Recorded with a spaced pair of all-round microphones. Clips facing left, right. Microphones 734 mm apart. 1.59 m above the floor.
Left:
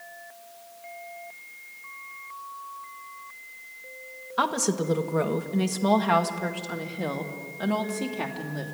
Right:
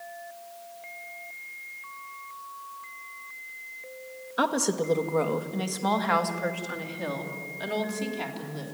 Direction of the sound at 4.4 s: 35° left (ahead or behind).